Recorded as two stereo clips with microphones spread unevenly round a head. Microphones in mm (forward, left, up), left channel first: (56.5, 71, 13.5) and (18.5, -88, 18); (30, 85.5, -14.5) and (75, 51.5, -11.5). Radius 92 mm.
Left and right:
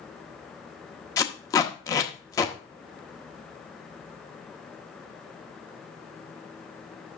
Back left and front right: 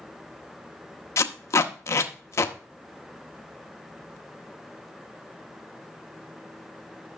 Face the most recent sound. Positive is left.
turn(degrees=145)